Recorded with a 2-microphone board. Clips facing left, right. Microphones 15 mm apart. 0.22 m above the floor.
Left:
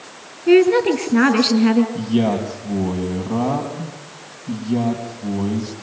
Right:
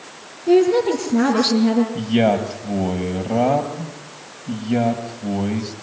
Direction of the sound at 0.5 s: 50° left (ahead or behind).